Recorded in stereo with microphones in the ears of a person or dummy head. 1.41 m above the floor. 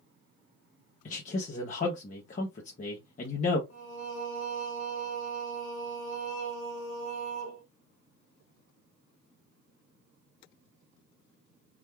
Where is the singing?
65° left (ahead or behind), 0.9 m.